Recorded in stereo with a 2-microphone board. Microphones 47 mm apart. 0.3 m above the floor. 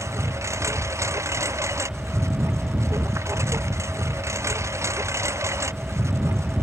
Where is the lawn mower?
85° right; by 6.6 s 80° right.